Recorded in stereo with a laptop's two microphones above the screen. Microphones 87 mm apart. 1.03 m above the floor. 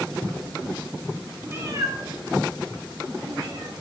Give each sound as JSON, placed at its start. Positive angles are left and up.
{"t": 1.5, "sound": "a cat meowing", "side_deg": -25, "distance_m": 0.5}